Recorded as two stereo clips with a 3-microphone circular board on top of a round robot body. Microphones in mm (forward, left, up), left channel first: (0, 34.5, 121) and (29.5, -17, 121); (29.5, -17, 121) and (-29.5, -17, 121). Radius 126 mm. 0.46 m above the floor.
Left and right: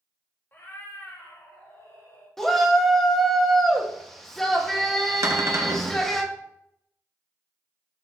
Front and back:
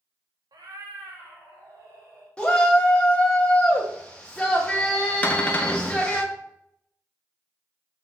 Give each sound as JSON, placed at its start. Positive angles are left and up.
{"t": 0.5, "sound": "a cat meowing", "azimuth_deg": 180, "distance_m": 0.8}
{"t": 2.4, "sound": "a shout", "azimuth_deg": 45, "distance_m": 0.9}
{"t": 5.2, "sound": "a cupboard door", "azimuth_deg": -60, "distance_m": 0.9}